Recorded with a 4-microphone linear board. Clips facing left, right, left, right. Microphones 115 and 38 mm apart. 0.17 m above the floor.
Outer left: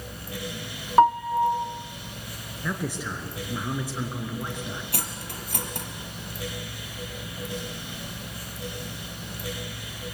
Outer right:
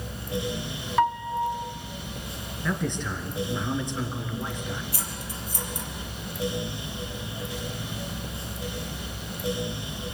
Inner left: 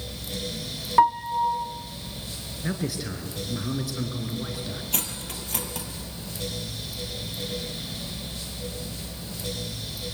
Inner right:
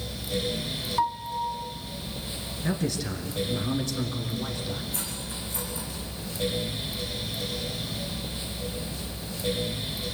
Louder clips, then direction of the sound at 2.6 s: Outer right 2 dB, inner right 1 dB; 5° left (ahead or behind).